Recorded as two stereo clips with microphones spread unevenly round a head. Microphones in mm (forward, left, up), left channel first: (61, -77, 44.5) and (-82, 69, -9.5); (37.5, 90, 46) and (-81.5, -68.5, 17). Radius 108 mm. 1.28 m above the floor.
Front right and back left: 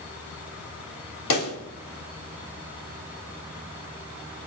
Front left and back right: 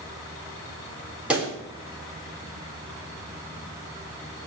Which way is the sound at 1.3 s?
40° right.